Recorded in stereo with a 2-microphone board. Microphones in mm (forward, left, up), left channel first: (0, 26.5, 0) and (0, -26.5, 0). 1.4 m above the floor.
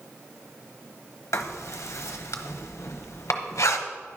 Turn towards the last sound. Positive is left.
turn(degrees=70)  # may be behind; listen again after turning